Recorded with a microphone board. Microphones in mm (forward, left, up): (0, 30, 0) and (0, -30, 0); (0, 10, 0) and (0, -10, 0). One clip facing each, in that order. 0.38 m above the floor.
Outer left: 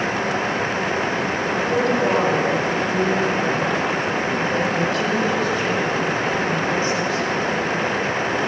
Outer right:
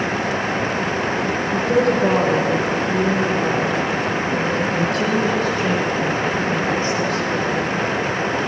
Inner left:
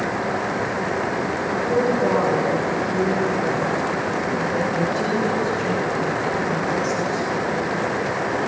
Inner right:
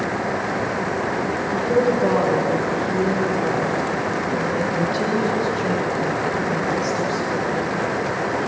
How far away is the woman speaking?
About 9 m.